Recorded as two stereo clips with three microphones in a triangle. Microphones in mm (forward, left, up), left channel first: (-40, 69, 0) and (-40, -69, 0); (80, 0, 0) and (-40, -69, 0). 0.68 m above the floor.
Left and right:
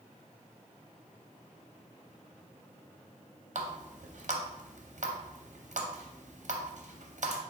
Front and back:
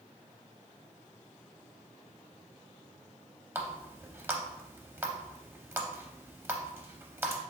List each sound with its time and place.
3.5 s a running tap: 75° right, 0.6 m